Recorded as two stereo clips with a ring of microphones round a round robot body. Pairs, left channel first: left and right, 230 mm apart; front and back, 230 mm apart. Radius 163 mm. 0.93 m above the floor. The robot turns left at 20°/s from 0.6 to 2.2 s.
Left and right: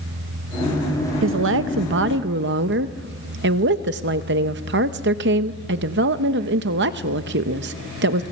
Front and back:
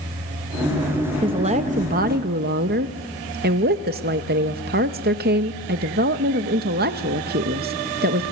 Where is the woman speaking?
110° right, 0.7 m; by 8.2 s 130° right, 0.7 m.